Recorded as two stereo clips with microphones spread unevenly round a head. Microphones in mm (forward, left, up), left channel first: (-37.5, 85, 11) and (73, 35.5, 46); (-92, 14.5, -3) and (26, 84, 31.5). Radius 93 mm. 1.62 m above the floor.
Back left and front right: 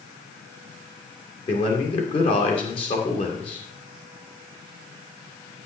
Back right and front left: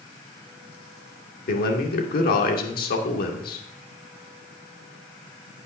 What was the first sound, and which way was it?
A man speaking, 145° right.